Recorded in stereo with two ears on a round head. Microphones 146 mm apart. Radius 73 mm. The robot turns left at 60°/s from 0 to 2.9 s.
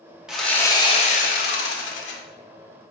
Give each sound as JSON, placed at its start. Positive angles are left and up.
{"t": 0.3, "sound": "sawing", "azimuth_deg": -175, "distance_m": 0.8}